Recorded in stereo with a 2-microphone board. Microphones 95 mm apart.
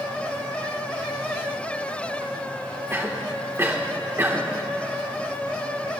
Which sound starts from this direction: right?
A cough, at 2.9 s.